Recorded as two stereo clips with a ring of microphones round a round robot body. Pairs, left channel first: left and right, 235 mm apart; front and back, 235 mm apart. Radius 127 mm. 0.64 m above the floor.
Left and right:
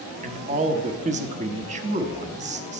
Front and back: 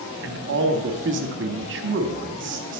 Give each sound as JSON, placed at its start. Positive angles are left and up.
{"t": 0.2, "sound": "a man speaking", "azimuth_deg": -145, "distance_m": 0.9}